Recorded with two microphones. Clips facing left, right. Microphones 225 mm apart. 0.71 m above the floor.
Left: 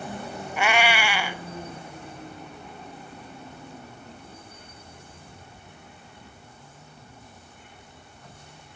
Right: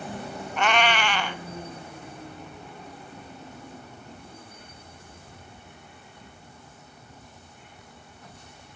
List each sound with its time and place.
0.6 s a cat meowing: 10° left (ahead or behind), 0.7 m